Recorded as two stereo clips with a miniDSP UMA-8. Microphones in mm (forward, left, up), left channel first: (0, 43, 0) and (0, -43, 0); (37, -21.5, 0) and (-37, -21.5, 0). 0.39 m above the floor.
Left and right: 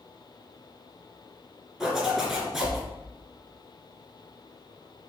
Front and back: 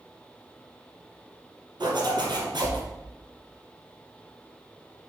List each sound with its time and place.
1.8 s a zipper: 175° right, 2.5 m